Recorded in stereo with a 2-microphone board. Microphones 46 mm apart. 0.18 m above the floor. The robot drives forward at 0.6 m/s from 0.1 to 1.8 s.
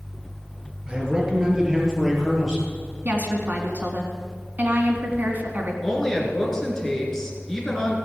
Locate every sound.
0.9 s a man speaking: 15° right (ahead or behind), 2.5 m; by 2.7 s 10° right (ahead or behind), 3 m
3.0 s a woman speaking: 40° right (ahead or behind), 2 m
5.8 s a woman speaking: 10° left (ahead or behind), 3 m